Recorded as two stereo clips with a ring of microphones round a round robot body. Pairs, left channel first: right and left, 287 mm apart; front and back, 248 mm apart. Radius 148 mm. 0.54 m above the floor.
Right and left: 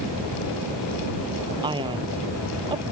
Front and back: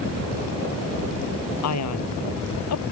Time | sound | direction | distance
1.6 | a man speaking | 15° left | ?